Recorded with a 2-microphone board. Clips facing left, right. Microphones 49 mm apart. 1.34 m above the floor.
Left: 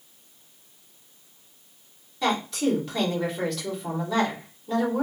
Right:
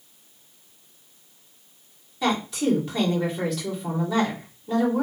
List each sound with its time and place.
2.2 s a woman speaking: 5° right (ahead or behind), 2.5 m